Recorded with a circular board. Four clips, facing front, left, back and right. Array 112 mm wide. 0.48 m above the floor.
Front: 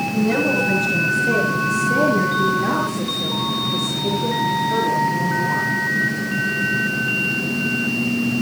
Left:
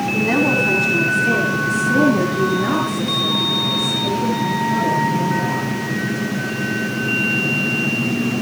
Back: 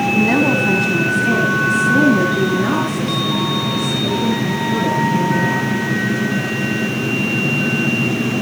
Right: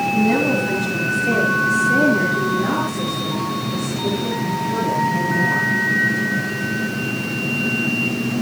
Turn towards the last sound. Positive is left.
turn(degrees=175)